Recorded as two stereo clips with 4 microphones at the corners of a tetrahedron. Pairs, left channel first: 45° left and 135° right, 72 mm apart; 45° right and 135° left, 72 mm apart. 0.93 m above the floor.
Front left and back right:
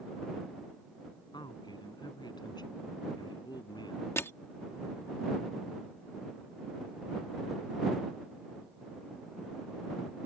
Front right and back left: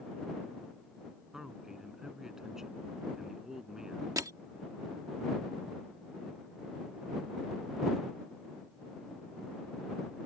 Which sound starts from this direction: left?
Crushing, at 4.2 s.